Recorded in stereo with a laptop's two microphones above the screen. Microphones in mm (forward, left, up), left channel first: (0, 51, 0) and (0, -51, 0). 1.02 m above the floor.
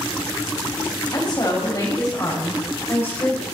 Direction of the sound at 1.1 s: 45° left (ahead or behind).